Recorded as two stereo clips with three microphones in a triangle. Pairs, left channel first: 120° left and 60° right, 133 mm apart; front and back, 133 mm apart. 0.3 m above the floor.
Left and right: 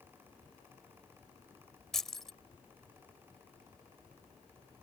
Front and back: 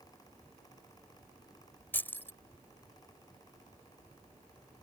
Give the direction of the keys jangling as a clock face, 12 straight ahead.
11 o'clock.